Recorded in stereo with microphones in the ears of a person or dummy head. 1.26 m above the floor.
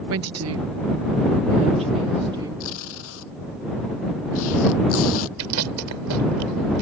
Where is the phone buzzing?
No phone buzzing in this recording.